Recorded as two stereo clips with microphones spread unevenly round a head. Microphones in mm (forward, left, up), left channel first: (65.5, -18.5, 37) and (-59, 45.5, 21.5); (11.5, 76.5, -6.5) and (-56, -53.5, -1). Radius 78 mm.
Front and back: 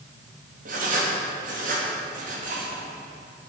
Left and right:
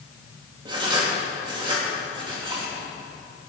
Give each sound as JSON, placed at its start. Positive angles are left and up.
{"t": 0.7, "sound": "writing", "azimuth_deg": -175, "distance_m": 3.0}